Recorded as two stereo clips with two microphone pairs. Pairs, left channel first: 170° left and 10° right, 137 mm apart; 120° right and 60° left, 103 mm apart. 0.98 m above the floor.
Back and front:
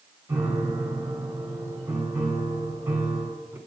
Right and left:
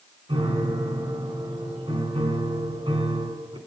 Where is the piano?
60° left, 1.7 m.